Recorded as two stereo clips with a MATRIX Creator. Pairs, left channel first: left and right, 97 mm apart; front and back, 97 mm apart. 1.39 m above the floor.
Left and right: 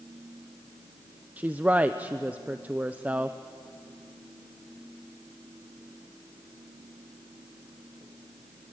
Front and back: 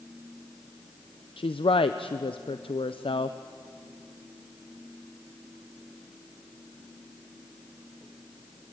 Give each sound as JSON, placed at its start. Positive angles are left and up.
{"t": 1.4, "sound": "a woman speaking", "azimuth_deg": -15, "distance_m": 0.6}